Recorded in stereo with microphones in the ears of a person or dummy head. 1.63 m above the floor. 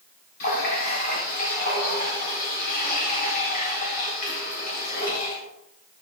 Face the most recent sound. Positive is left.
turn(degrees=45)  # may be behind; listen again after turning